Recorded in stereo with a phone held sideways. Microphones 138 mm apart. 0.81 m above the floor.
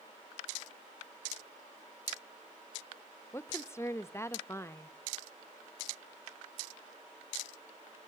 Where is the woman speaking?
20° left (ahead or behind), 0.6 m.